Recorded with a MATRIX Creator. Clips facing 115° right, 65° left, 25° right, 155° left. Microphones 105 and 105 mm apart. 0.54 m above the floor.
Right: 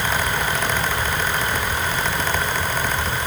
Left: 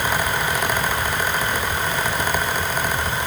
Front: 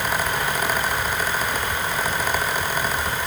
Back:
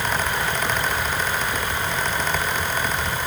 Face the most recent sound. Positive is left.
No sound to turn to.